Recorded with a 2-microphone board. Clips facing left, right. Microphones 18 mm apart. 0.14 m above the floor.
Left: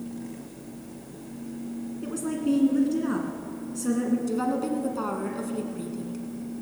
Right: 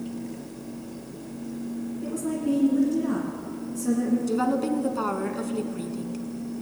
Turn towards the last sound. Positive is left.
turn(degrees=-20)  # may be behind; listen again after turning